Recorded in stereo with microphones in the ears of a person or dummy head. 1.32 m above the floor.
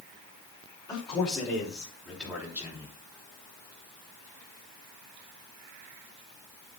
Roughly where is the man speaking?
Centre.